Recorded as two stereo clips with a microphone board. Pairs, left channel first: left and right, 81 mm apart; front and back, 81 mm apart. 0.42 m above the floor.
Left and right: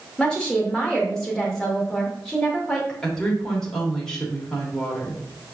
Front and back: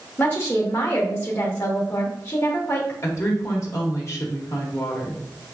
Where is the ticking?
No ticking in this recording.